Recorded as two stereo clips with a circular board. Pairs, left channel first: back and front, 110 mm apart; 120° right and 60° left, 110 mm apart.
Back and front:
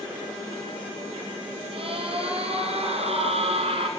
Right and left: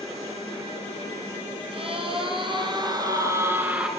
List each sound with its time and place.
1.7 s a scream: 30° left, 4.5 m; by 3.9 s 20° right, 2.5 m